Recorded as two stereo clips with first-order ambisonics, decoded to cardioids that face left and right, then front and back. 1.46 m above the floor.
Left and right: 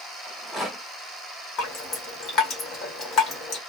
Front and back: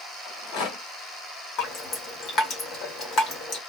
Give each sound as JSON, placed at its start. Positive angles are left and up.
{"t": 0.2, "sound": "a rattle", "azimuth_deg": 5, "distance_m": 1.8}
{"t": 1.6, "sound": "dripping", "azimuth_deg": 45, "distance_m": 1.7}